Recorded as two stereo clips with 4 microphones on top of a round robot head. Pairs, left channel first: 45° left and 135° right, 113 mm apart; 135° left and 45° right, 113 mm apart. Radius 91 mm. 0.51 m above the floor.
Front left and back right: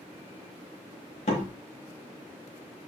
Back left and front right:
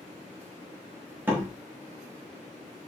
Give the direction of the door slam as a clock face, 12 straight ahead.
11 o'clock.